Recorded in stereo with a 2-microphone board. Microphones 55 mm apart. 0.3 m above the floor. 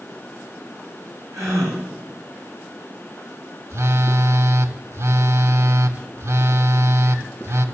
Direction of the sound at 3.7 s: 55° right (ahead or behind).